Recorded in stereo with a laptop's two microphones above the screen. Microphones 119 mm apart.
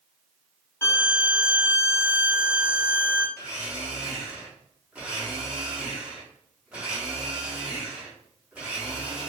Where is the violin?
20° left (ahead or behind), 0.5 m.